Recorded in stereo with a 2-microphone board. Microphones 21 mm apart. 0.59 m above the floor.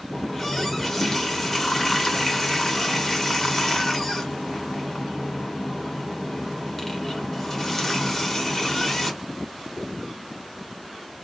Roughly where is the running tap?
Centre.